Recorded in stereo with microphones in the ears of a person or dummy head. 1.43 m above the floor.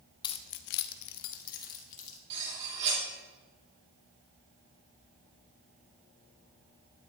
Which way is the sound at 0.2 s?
25° left (ahead or behind).